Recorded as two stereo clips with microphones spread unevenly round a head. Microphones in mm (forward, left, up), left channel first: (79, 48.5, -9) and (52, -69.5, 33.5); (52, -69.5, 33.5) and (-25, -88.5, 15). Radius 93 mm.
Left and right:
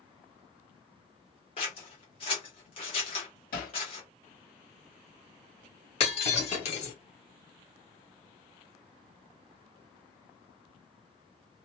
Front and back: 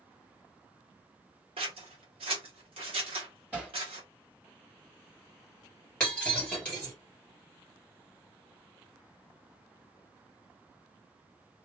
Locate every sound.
1.6 s scissors: 145° left, 0.6 m
3.5 s hammering: 110° left, 1.1 m
6.0 s breaking glass: 65° left, 1.9 m